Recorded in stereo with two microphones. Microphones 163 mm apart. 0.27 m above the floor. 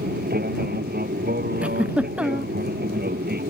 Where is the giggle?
10° right (ahead or behind).